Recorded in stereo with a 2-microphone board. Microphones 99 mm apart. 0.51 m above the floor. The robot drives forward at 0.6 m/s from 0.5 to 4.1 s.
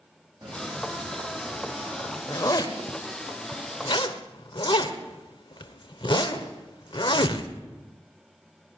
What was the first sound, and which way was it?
Footsteps, 40° right (ahead or behind).